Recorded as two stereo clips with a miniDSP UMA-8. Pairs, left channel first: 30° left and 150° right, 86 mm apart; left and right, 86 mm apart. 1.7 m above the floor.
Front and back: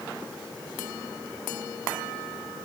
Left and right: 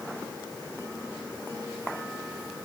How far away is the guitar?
No guitar in this recording.